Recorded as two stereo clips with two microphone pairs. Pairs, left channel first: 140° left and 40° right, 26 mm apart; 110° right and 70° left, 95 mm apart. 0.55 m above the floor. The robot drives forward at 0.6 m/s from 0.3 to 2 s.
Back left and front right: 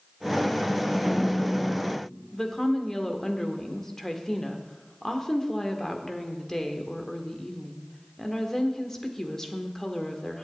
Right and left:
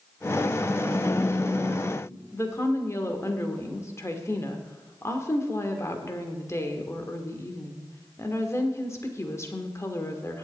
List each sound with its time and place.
0.9 s a phone buzzing: 135° right, 3.5 m; by 2.2 s 140° right, 4 m
2.3 s a woman speaking: 160° right, 1.4 m